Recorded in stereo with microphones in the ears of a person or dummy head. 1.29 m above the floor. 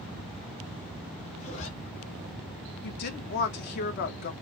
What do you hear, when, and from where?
1.4 s a zipper: 40° left (ahead or behind), 1.1 m
2.8 s a woman speaking: 55° left (ahead or behind), 0.6 m